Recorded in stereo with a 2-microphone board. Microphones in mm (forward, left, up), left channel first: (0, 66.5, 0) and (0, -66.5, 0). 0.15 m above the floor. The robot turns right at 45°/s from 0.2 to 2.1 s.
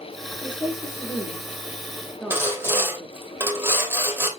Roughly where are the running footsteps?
I don't hear running footsteps.